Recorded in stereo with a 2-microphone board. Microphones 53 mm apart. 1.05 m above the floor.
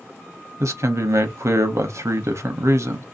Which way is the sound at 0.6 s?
65° right (ahead or behind).